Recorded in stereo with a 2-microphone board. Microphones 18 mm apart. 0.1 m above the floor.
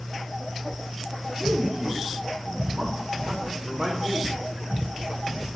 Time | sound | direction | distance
1.4 | a man speaking | 30° right (ahead or behind) | 4 m